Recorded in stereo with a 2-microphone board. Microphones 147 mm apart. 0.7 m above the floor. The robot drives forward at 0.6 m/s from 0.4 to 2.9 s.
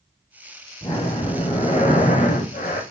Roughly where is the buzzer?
I don't hear a buzzer.